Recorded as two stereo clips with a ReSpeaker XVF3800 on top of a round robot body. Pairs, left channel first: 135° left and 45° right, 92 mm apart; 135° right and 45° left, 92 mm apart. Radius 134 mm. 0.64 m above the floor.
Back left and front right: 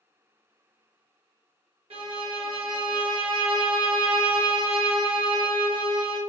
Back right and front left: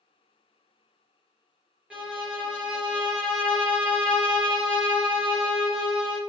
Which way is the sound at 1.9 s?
35° right.